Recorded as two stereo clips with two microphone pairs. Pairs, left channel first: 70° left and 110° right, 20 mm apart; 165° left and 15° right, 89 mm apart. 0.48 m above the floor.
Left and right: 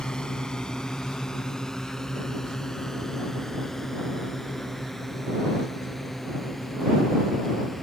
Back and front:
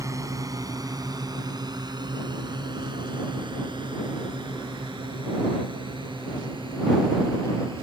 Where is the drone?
30° left; by 7.8 s 10° right.